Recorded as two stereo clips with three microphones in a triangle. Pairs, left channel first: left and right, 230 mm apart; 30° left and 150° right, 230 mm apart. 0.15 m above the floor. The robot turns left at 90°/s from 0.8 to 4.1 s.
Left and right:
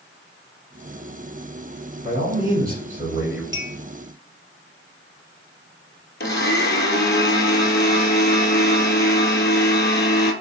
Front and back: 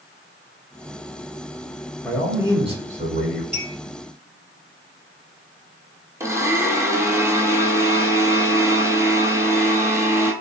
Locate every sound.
2.0 s a man speaking: 45° right, 1.6 m; by 3.4 s 170° right, 1.6 m
3.5 s a clink: 115° right, 1.7 m; by 3.7 s 130° right, 1.7 m
6.2 s a blender: 135° left, 0.7 m